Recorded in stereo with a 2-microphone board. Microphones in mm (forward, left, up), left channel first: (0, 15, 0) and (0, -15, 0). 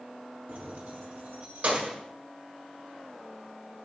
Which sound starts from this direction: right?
Keys jangling, at 0.5 s.